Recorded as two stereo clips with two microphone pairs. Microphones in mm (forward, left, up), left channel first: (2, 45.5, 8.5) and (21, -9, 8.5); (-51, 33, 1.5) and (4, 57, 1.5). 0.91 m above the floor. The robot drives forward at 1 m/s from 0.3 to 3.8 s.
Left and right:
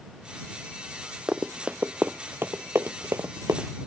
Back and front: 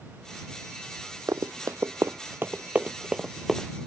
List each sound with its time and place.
1.3 s running footsteps: straight ahead; by 3.7 s 70° right